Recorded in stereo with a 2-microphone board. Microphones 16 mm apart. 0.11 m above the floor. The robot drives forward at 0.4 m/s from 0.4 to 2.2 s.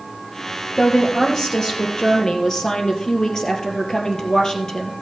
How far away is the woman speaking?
About 3 m.